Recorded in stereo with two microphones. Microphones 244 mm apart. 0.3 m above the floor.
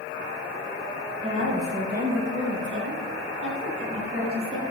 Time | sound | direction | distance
1.2 | a woman speaking | 30° right (ahead or behind) | 1.5 m